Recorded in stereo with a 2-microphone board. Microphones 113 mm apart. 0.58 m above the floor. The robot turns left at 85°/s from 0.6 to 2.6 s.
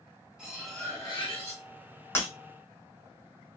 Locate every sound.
0.4 s cutlery clinking: 170° right, 1.4 m; by 1.6 s 100° left, 1.4 m
2.1 s breaking glass: 20° left (ahead or behind), 1.0 m; by 2.3 s 10° left (ahead or behind), 1.0 m